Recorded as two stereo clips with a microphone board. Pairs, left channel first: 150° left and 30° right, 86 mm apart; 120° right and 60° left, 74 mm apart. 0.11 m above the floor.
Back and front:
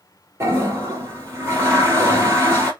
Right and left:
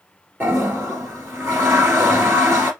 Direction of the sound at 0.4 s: 15° left.